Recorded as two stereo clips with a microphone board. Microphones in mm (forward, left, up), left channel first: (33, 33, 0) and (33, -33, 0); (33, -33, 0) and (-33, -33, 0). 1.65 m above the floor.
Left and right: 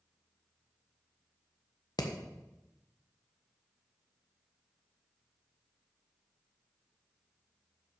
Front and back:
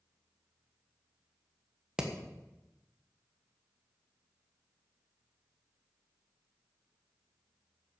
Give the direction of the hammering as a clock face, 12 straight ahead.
9 o'clock.